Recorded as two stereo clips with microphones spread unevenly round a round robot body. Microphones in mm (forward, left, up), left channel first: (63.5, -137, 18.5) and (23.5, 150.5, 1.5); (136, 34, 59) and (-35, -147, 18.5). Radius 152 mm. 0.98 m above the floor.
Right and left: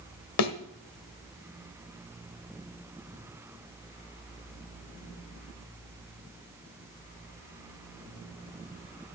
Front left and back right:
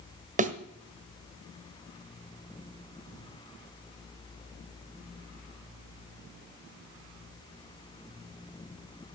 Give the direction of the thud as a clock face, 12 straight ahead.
2 o'clock.